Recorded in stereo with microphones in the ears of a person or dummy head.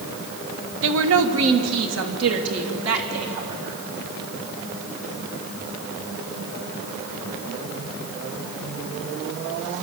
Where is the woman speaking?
60° right (ahead or behind), 1.4 m; by 3.8 s 80° right, 4.5 m.